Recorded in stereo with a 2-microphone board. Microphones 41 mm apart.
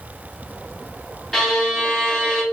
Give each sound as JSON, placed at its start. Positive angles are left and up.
{"t": 1.3, "sound": "a violin", "side_deg": 10, "distance_m": 0.7}